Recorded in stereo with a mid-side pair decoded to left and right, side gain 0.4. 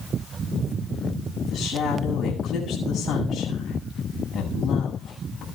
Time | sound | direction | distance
1.5 | a woman speaking | 70° left | 8 m